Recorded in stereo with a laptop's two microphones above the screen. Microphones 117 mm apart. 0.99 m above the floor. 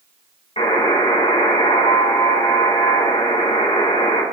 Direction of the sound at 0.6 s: 70° left (ahead or behind).